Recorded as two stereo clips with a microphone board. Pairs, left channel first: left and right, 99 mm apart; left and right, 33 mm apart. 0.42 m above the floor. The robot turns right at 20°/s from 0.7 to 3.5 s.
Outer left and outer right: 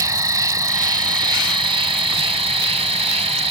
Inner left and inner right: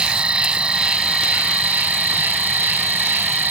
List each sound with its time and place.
0.0 s an insect: 140° right; by 3.5 s 85° right